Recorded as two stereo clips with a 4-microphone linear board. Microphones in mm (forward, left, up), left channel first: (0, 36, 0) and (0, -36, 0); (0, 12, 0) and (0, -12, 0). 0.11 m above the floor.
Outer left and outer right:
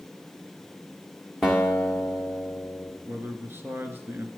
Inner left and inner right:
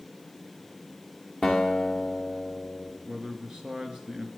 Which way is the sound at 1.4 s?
Centre (ahead or behind).